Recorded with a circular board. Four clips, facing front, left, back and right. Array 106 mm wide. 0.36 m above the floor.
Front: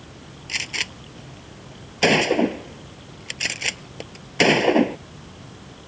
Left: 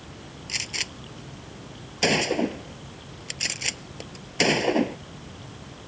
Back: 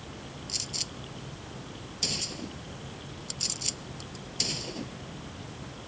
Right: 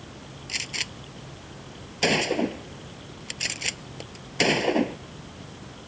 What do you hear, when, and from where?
0.5 s a gunshot: 5° left